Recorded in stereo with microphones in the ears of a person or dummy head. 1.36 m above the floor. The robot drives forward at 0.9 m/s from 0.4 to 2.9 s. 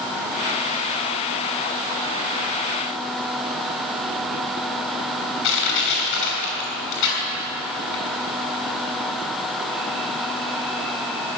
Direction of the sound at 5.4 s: 70° left (ahead or behind).